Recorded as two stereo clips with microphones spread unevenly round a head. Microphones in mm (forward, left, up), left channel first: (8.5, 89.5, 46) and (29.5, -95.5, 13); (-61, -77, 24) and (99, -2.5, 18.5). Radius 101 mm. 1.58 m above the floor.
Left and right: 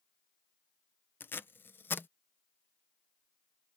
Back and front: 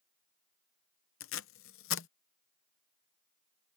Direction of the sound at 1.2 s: 175° left.